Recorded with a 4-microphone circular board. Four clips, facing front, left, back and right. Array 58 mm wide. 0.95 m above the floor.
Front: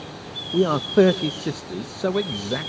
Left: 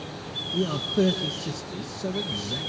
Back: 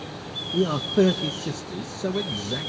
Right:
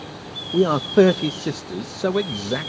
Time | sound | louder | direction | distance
0.5 | a man speaking | right 10 dB, front 4 dB | 60° right | 0.5 m